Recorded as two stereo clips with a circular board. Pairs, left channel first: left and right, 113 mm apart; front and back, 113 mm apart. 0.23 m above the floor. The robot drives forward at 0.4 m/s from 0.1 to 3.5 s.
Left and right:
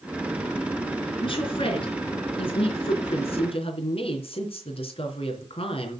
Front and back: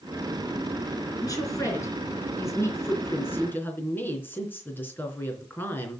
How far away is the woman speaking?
About 3.5 m.